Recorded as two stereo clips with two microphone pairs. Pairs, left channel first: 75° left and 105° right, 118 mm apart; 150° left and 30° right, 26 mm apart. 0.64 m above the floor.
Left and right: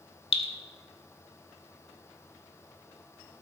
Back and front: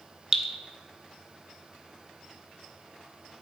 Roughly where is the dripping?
Ahead left.